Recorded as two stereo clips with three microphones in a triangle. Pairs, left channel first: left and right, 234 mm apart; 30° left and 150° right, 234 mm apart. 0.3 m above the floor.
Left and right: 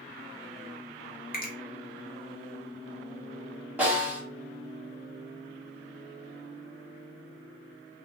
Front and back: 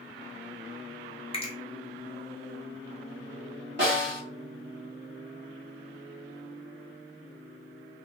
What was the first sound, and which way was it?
A finger snap, 80° left.